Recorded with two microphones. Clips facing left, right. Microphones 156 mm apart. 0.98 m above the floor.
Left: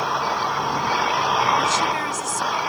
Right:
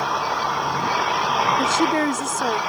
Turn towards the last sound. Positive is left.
turn(degrees=-60)  # may be behind; listen again after turning